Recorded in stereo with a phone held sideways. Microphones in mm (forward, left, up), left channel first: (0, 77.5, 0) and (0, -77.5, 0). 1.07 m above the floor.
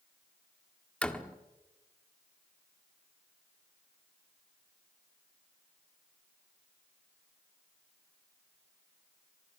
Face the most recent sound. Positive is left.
turn(degrees=5)  # may be behind; listen again after turning